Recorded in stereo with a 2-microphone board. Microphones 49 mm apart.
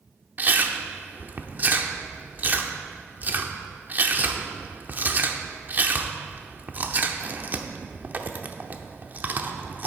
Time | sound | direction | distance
0.4 | chewing | 40° right (ahead or behind) | 0.7 m